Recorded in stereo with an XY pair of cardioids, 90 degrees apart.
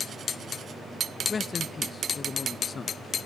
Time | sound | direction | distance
1.3 | a man speaking | 45° left | 0.8 m